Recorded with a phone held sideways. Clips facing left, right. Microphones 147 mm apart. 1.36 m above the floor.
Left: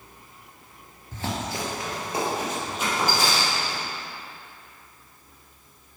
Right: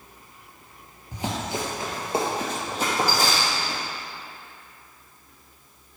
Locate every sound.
1.1 s running footsteps: 15° right (ahead or behind), 1.7 m; by 3.8 s 40° right (ahead or behind), 4 m